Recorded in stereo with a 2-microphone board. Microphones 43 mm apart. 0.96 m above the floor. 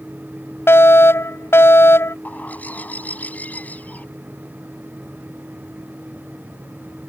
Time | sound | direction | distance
0.7 | a fire alarm | 80° left | ?
2.2 | a bird | 40° left (ahead or behind) | ?